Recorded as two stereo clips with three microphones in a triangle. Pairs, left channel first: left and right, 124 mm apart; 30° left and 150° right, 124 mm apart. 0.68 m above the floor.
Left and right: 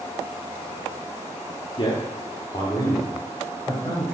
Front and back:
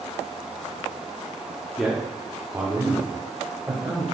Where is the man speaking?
120° left, 1.6 m; by 4.0 s 155° left, 4 m.